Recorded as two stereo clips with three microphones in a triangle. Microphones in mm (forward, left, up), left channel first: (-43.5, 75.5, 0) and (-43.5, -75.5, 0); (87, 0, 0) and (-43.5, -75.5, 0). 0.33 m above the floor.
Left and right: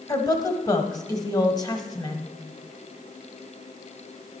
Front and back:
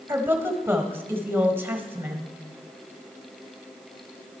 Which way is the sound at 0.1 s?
140° left.